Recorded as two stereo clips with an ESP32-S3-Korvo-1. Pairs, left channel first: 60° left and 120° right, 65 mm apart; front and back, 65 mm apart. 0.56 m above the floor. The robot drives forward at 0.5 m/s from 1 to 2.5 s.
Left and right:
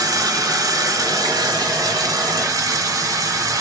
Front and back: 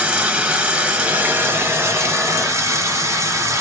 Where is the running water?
110° right, 0.9 m; by 3.6 s 140° right, 1.3 m.